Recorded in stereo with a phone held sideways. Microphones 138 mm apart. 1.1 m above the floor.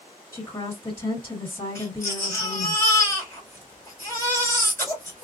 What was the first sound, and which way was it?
A woman speaking, 20° left (ahead or behind).